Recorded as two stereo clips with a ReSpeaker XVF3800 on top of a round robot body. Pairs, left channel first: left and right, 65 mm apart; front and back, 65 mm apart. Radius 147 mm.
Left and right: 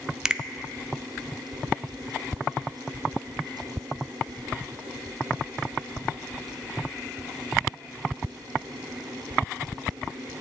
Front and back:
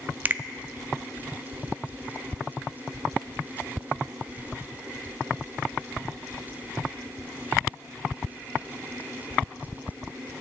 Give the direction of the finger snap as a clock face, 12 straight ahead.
5 o'clock.